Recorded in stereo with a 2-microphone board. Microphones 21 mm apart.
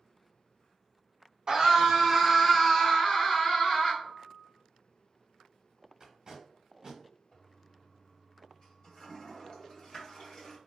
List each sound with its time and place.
1.5 s a scream: 40° right (ahead or behind), 1.1 m; by 3.9 s 50° left (ahead or behind), 1.3 m
4.0 s a piano: 35° right (ahead or behind), 0.8 m
6.0 s tape being pulled: 35° right (ahead or behind), 1.3 m
7.3 s a toilet flushing: 50° left (ahead or behind), 1.8 m